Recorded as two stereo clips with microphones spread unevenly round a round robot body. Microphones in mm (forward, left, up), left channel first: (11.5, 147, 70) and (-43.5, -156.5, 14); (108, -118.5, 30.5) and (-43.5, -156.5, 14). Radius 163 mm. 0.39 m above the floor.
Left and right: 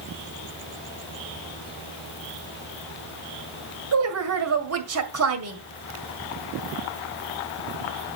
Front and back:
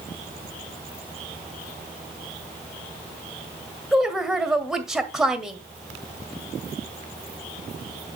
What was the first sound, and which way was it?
A woman speaking, 80° right.